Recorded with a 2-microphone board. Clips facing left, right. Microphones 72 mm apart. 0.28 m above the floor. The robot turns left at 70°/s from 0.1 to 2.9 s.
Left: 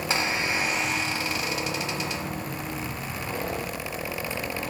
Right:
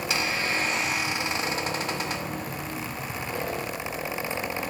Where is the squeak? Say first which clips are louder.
Left 1 dB; 50° left, 1.3 m; by 2.2 s 100° right, 1.3 m.